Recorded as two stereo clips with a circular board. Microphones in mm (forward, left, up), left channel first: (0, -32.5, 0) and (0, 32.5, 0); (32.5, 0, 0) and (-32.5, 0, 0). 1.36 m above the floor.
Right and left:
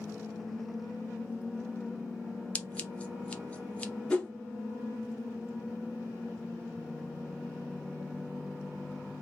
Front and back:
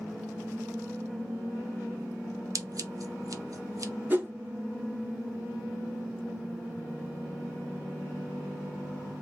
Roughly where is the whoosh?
Behind right.